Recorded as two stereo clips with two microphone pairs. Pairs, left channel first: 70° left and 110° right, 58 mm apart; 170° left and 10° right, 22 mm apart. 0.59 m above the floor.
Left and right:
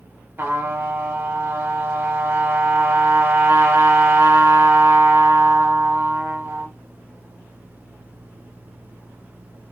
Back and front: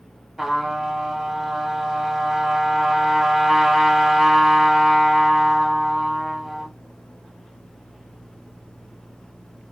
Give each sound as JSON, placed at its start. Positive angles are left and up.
{"t": 0.4, "sound": "a trumpet", "azimuth_deg": -80, "distance_m": 1.0}